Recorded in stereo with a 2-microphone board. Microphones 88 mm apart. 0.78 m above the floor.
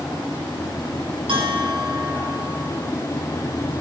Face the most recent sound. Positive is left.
turn(degrees=-80)